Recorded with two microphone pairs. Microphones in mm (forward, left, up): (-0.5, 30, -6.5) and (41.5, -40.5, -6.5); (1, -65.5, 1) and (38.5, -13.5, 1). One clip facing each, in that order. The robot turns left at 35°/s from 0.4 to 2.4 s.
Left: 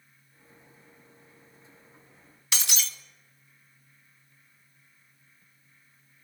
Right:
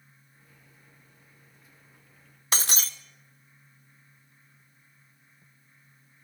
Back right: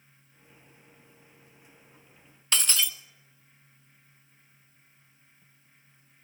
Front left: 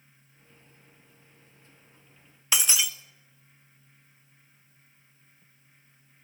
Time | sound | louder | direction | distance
2.5 | breaking glass | right 3 dB, even | 25° right | 0.6 m